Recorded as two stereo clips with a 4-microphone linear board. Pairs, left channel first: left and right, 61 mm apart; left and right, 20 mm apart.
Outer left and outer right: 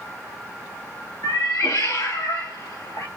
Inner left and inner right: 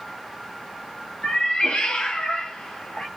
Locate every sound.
1.2 s a cat meowing: 65° left (ahead or behind), 0.9 m